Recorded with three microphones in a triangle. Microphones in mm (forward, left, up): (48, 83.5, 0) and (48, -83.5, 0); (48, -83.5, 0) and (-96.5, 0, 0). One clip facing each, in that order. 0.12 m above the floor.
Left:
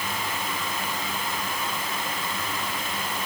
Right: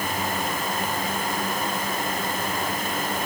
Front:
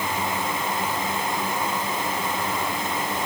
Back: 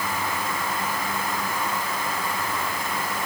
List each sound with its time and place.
Only background noise.